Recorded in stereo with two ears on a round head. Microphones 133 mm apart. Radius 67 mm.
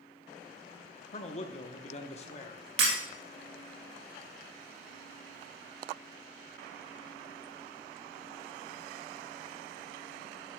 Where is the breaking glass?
80° right, 3.5 m.